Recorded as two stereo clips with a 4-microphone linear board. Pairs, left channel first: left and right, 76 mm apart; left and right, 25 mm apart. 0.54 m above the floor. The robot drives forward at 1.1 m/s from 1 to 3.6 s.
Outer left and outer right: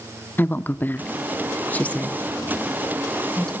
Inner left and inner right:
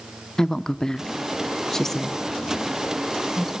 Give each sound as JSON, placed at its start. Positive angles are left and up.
{"t": 0.4, "sound": "a woman speaking", "side_deg": 25, "distance_m": 0.8}